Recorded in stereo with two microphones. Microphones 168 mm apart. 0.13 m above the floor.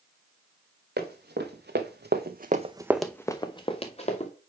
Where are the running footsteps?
80° right, 1.6 m; by 4.3 s 45° left (ahead or behind), 1.5 m.